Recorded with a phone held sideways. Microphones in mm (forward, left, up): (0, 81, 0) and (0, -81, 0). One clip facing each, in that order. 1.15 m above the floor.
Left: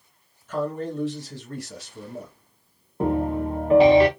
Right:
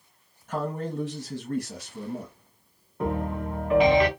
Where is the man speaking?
60° right (ahead or behind), 1.5 m.